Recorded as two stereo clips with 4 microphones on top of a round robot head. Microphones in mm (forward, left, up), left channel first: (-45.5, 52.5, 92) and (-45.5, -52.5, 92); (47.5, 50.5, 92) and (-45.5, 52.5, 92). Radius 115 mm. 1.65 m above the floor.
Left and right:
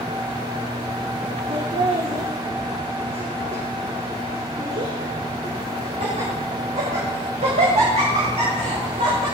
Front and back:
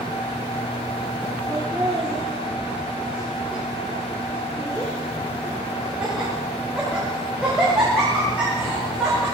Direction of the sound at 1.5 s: 105° right.